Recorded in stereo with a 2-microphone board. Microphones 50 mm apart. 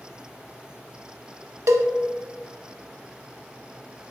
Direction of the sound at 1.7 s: 80° right.